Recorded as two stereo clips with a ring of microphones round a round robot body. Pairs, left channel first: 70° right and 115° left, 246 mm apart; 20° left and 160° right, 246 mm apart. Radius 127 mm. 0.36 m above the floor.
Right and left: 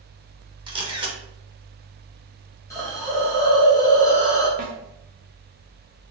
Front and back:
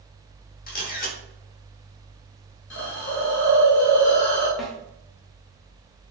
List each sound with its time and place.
0.7 s a camera shutter: 55° left, 0.8 m
2.7 s a hiss: 5° left, 1.4 m
4.6 s a snare drum: 115° left, 0.8 m